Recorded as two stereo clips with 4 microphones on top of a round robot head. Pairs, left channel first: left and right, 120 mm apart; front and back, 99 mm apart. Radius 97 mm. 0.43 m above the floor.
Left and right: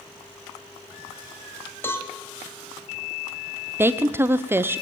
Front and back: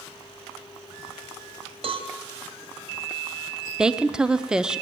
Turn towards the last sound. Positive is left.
turn(degrees=-115)